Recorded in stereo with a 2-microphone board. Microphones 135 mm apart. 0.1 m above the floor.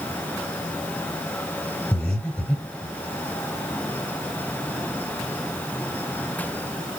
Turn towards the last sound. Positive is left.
turn(degrees=5)  # may be behind; listen again after turning